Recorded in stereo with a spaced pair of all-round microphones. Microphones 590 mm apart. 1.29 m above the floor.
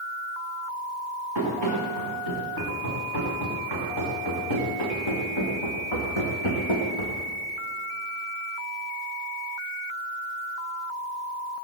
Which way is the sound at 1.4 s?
40° left (ahead or behind).